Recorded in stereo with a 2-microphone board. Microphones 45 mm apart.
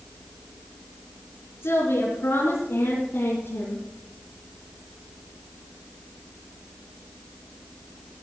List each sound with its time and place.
1.6 s a woman speaking: 70° left (ahead or behind), 3.5 m; by 3.9 s 55° left (ahead or behind), 3 m